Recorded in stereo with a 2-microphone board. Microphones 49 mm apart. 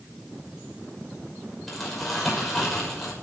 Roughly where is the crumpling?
Centre.